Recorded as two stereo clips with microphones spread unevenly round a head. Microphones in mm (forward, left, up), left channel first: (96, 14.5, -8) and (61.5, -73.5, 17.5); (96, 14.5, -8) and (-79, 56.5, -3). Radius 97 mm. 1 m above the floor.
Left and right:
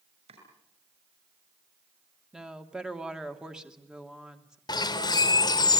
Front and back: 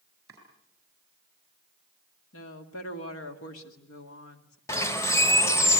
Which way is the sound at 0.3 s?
115° right.